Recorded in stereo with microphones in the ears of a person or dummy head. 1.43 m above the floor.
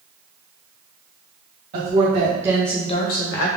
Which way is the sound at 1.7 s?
40° right (ahead or behind).